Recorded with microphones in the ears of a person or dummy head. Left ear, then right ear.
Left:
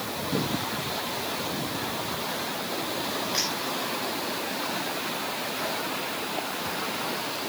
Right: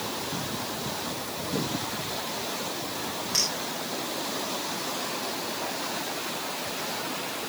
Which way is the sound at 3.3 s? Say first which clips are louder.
Right 3 dB; 5° right (ahead or behind).